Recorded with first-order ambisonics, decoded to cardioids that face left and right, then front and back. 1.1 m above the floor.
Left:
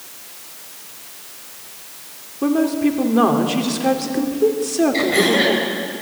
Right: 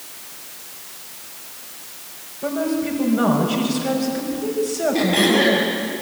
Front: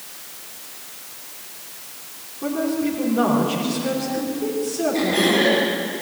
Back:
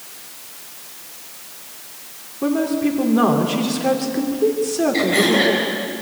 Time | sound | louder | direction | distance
2.4 | a woman speaking | left 4 dB, back 3 dB | 115° left | 3 m
4.9 | throat clearing | even, back 2 dB | 125° left | 9 m